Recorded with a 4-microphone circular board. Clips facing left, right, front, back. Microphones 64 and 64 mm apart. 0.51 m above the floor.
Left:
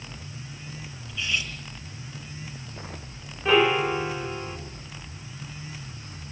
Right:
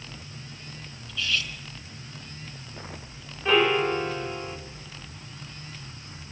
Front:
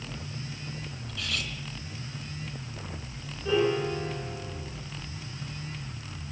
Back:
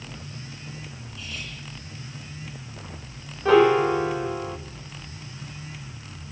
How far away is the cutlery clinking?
About 3 m.